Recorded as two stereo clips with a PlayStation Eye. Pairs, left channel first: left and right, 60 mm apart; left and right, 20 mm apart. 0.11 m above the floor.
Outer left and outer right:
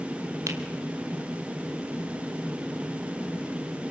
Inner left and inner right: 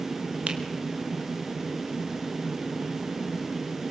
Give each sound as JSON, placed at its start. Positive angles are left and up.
{"t": 0.5, "sound": "a finger snap", "side_deg": -60, "distance_m": 3.0}